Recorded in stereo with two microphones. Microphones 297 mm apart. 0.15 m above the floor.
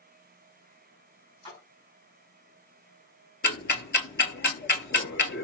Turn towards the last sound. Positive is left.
turn(degrees=40)  # may be behind; listen again after turning